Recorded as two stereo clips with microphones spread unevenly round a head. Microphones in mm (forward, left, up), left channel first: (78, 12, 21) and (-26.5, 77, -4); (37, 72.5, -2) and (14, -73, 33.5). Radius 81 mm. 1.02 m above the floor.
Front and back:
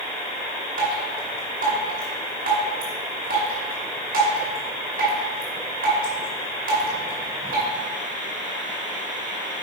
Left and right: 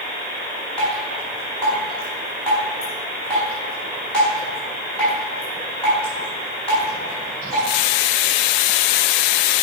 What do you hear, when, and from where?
0.8 s dripping: 170° left, 4.5 m